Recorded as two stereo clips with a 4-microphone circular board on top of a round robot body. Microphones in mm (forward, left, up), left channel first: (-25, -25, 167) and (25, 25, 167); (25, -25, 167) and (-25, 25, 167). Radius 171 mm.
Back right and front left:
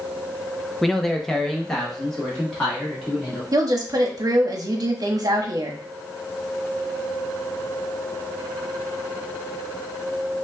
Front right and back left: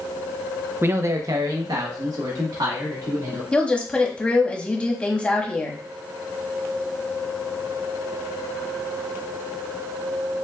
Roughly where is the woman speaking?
Ahead left.